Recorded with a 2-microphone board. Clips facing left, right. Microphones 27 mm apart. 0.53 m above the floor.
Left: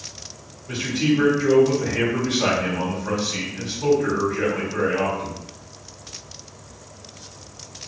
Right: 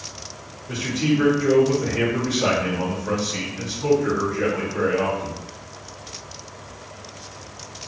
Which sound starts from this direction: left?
A man speaking, at 0.7 s.